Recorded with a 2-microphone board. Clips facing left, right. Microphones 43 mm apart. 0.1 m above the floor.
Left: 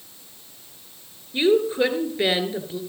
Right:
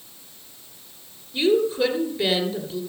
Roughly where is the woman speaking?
Left.